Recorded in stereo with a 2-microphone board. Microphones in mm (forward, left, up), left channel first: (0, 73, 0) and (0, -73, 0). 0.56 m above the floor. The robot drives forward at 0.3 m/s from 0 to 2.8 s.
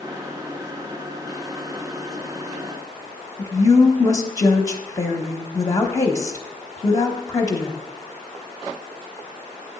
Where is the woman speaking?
25° left (ahead or behind), 0.9 m.